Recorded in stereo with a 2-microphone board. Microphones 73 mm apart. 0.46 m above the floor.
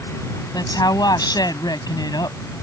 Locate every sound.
0.5 s a woman speaking: 65° left (ahead or behind)